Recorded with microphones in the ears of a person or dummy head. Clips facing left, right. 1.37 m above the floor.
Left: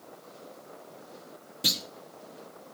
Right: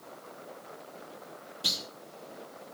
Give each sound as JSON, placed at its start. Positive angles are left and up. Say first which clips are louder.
{"t": 1.6, "sound": "a clunk", "louder": "left 6 dB", "side_deg": 30, "distance_m": 0.6}